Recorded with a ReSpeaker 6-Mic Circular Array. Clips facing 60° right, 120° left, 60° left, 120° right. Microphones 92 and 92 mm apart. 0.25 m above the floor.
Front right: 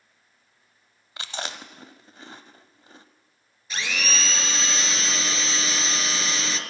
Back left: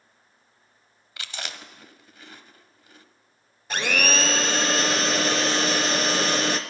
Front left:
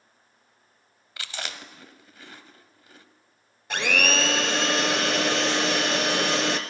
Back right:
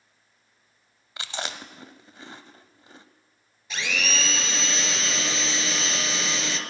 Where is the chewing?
80° right, 0.7 m.